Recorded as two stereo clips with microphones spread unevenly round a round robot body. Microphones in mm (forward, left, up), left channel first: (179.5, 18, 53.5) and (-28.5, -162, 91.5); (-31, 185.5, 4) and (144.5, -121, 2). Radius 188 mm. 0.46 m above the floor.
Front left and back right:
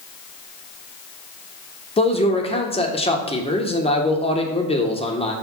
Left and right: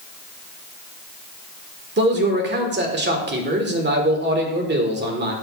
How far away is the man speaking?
About 1.5 m.